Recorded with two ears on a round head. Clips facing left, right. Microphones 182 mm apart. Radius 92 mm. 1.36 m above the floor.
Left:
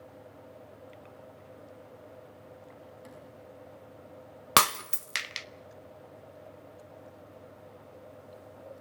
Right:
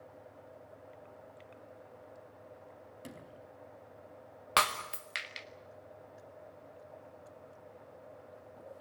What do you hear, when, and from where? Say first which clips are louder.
3.0 s a sliding door: left 1 dB; 40° right (ahead or behind), 4.5 m
4.6 s breaking glass: left 5 dB; 60° left (ahead or behind), 0.7 m